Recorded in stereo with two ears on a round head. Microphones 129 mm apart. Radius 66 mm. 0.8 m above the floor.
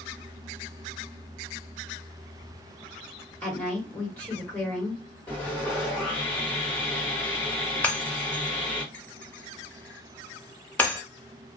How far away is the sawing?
About 1.3 m.